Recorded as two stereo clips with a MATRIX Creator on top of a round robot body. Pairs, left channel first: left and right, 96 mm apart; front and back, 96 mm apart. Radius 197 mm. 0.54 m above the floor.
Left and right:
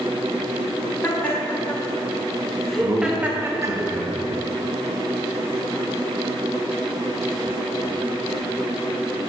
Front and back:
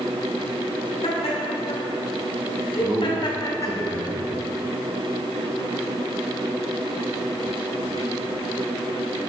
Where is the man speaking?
135° right, 1.4 m.